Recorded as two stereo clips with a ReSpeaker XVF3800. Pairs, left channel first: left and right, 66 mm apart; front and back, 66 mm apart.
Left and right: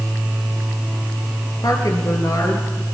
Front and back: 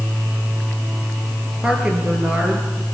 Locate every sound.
1.6 s a woman speaking: 105° left, 4 m; by 2.9 s 120° left, 4.5 m